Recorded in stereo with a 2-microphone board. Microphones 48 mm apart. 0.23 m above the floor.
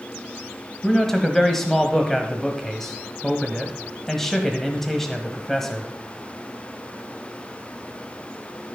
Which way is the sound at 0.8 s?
5° left (ahead or behind).